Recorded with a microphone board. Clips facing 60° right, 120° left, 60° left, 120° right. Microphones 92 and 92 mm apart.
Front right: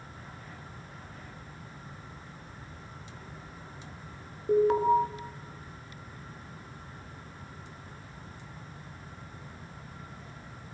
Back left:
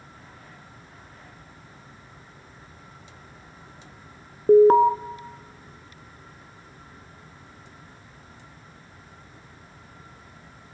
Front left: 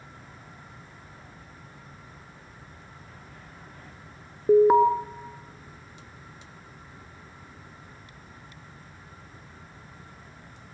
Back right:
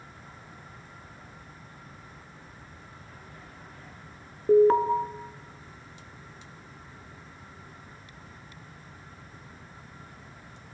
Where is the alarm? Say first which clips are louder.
Back left 10 dB, front left 2 dB; 135° left, 1.3 m.